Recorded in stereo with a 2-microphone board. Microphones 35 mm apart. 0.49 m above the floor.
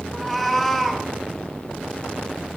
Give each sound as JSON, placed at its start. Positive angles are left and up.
{"t": 0.1, "sound": "a cat meowing", "side_deg": 5, "distance_m": 0.9}